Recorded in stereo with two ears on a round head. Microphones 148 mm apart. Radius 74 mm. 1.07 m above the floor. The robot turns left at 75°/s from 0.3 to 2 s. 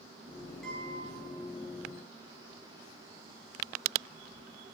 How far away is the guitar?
About 5.5 m.